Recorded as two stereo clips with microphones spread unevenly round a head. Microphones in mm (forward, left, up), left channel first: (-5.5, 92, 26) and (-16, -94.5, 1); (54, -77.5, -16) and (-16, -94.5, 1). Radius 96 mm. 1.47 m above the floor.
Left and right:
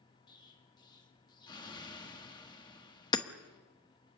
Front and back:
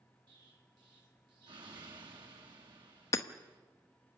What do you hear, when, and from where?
0.3 s an explosion: 155° left, 2.5 m
3.1 s hammering: 50° left, 0.9 m